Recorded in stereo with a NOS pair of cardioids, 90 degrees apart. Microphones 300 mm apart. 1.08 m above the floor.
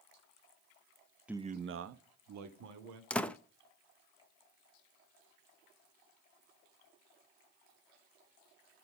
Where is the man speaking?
5° right, 0.6 m; by 3.0 s 80° right, 1.8 m.